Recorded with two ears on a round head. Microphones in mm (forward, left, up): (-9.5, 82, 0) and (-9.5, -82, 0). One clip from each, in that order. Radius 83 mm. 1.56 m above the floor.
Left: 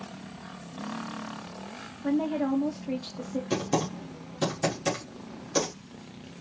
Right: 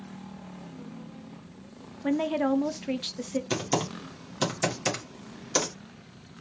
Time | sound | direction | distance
2.0 | a woman speaking | 50° right (ahead or behind) | 0.5 m
3.5 | typing on a keyboard | 60° right (ahead or behind) | 1.5 m